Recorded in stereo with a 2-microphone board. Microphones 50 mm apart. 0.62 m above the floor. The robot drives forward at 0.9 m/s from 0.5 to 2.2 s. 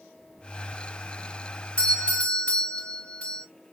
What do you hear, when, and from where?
1.8 s a doorbell: 20° left (ahead or behind), 3 m